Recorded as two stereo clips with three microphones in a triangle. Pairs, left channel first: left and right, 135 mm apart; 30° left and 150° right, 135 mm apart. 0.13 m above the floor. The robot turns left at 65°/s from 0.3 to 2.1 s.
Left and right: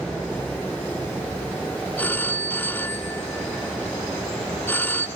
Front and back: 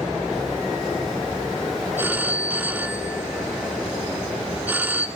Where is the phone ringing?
155° left, 0.6 m; by 5.1 s 150° left, 0.6 m.